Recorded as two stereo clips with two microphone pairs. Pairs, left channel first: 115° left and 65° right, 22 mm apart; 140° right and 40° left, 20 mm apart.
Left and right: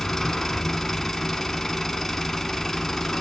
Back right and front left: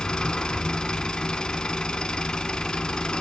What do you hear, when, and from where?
0.0 s an engine running: 165° right, 0.7 m